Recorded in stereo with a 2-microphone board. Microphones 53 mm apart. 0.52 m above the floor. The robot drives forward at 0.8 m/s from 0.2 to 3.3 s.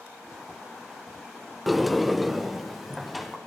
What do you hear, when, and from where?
1.7 s a sliding door: centre (ahead or behind), 0.7 m